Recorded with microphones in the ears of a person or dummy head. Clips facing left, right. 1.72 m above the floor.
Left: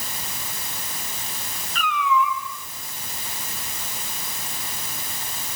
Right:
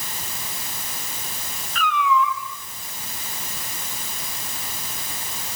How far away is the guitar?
No guitar in this recording.